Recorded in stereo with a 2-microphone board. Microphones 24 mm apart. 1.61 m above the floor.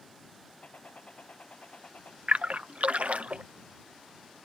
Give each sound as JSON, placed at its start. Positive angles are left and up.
{"t": 0.6, "sound": "a gunshot", "side_deg": 65}
{"t": 2.3, "sound": "a splash", "side_deg": -75}